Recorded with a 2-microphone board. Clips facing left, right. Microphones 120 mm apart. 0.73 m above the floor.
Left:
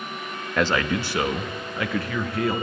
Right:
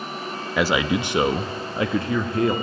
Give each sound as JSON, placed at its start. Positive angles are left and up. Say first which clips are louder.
{"t": 0.6, "sound": "a man speaking", "louder": "right 2 dB", "side_deg": -5, "distance_m": 0.6}